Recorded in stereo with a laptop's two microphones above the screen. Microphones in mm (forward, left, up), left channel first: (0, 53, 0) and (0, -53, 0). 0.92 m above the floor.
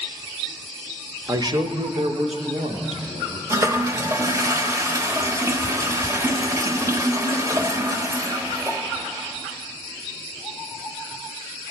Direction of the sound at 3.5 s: 25° right (ahead or behind).